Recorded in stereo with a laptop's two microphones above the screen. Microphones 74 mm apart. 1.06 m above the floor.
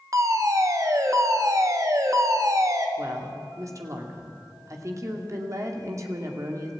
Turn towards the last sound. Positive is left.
turn(degrees=-45)  # may be behind; listen again after turning